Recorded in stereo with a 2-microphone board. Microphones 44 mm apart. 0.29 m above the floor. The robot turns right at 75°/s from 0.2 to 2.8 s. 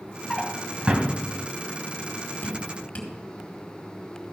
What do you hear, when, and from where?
0.3 s a drawer: 10° left (ahead or behind), 1.2 m; by 1.1 s 40° right (ahead or behind), 1.2 m
2.4 s dripping: 45° left (ahead or behind), 2 m; by 3.1 s 30° left (ahead or behind), 2 m